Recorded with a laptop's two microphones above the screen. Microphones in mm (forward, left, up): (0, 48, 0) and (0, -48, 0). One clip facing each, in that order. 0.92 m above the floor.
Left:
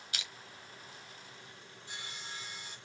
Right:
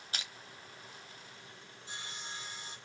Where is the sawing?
25° right (ahead or behind), 1.8 m.